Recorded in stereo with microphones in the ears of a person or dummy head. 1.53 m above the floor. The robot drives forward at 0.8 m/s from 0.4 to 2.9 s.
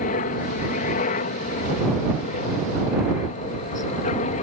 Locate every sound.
0.0 s a helicopter: 45° left (ahead or behind); by 4.4 s 40° left (ahead or behind)